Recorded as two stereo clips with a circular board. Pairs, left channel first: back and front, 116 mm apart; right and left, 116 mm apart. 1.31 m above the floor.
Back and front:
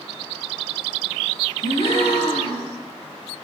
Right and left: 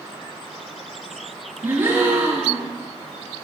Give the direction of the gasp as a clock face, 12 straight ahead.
7 o'clock.